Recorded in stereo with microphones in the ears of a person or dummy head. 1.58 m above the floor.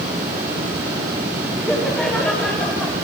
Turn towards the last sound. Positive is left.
turn(degrees=5)  # may be behind; listen again after turning